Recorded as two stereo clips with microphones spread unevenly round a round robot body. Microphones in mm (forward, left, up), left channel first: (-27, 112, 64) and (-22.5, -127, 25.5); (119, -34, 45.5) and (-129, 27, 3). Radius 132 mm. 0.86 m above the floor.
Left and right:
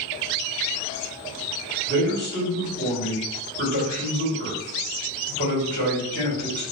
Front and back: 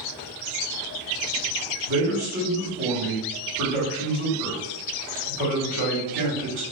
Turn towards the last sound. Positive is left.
turn(degrees=135)